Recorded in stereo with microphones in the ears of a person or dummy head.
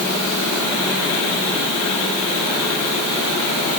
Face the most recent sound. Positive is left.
No sound to turn to.